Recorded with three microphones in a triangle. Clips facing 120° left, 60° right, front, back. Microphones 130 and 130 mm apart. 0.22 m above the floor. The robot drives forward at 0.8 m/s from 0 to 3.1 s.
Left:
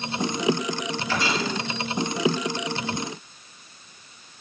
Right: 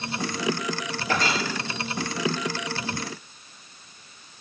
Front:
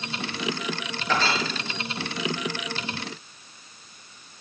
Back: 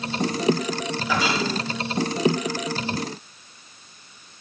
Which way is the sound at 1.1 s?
100° right.